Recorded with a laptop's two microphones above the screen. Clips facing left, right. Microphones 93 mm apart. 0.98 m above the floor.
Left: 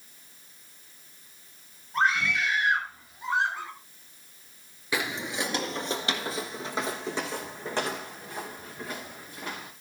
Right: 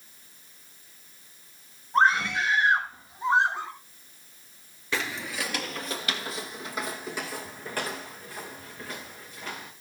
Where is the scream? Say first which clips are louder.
Right 3 dB; 30° right (ahead or behind), 6 m; by 3.7 s 20° right (ahead or behind), 5.5 m.